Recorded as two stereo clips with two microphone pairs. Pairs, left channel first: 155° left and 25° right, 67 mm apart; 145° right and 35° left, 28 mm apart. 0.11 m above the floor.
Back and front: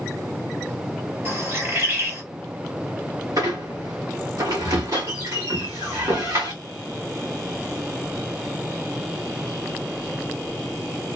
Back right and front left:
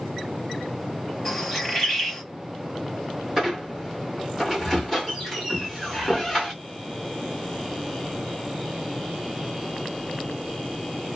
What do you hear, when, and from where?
1.2 s a bird: 60° right, 2.5 m
3.4 s a squeak: 55° right, 1.9 m